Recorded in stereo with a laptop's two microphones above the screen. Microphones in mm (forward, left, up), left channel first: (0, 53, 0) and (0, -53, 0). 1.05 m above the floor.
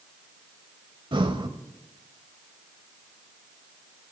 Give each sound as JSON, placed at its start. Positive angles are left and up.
{"t": 1.1, "sound": "breathing", "side_deg": -50, "distance_m": 1.2}